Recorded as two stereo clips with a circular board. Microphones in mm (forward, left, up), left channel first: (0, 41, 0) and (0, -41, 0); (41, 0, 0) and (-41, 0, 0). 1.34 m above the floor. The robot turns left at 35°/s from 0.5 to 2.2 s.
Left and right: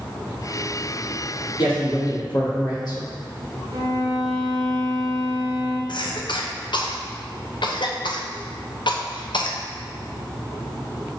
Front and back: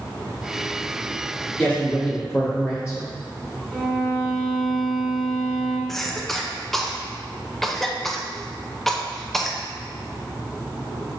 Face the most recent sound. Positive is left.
turn(degrees=85)